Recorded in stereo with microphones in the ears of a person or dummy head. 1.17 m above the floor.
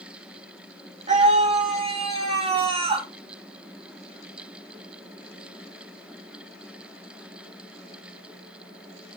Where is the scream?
40° right (ahead or behind), 3.5 m; by 3.1 s 25° right (ahead or behind), 3 m.